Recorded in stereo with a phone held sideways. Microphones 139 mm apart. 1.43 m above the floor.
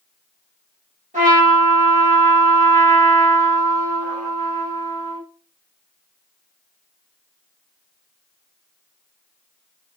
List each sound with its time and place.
1.1 s a trumpet: 65° right (ahead or behind), 1.3 m